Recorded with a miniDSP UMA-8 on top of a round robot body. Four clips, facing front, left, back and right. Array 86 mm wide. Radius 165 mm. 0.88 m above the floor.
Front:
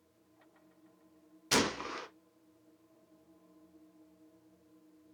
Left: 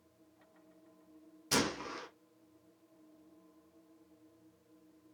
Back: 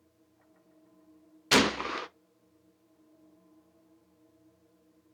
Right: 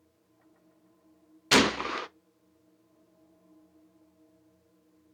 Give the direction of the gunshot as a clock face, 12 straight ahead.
4 o'clock.